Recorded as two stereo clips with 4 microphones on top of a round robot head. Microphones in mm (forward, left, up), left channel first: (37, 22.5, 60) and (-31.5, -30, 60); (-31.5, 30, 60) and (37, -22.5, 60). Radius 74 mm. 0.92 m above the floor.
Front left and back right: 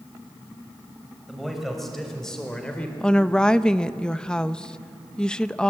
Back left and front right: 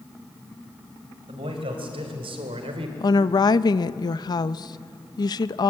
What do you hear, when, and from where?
1.3 s a man speaking: 55° right, 5.5 m; by 2.9 s 40° right, 3.5 m
3.0 s a woman speaking: 115° left, 0.8 m